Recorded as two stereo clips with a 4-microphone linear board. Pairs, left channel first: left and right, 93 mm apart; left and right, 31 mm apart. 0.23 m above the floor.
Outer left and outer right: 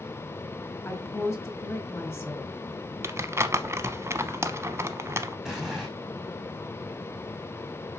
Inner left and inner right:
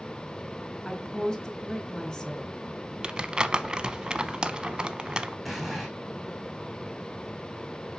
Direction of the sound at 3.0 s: 30° right (ahead or behind).